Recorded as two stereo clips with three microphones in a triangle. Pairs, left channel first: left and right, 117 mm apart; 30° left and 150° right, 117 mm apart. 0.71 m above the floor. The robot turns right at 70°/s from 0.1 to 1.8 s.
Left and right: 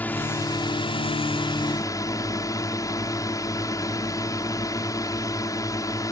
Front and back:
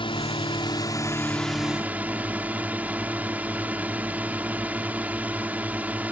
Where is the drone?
20° left; by 6.1 s 140° left.